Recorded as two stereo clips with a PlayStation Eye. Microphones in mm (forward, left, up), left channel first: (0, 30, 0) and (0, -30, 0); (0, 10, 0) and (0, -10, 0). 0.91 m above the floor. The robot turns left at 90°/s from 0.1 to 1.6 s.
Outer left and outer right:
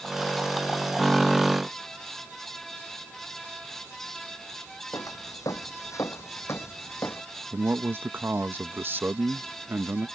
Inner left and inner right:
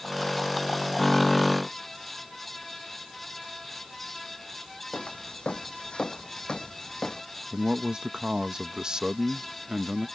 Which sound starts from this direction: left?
Footsteps, at 4.9 s.